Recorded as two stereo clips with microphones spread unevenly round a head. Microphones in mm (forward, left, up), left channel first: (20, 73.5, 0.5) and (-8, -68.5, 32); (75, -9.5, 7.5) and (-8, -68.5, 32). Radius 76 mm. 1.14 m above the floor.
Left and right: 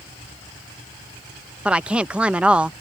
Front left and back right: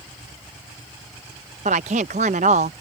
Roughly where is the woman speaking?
Behind.